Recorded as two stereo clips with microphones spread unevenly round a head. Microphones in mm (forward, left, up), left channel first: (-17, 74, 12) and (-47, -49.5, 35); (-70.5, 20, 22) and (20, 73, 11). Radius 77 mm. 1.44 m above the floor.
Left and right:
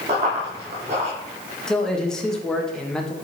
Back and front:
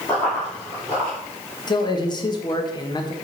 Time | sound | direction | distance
0.1 | running footsteps | 75° right | 2.5 m
1.7 | a man speaking | 165° left | 1.3 m